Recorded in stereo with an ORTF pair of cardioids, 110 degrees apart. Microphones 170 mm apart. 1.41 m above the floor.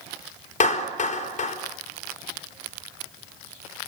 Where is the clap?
45° left, 4.5 m.